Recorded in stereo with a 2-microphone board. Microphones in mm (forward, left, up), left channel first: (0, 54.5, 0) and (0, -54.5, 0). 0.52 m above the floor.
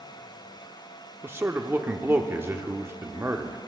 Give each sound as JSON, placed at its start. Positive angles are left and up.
{"t": 1.2, "sound": "a man speaking", "side_deg": -20, "distance_m": 0.8}